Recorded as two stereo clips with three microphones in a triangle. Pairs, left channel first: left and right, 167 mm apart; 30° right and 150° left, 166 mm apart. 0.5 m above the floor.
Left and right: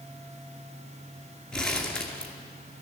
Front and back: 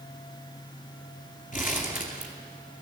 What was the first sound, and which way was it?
Crumpling, 5° left.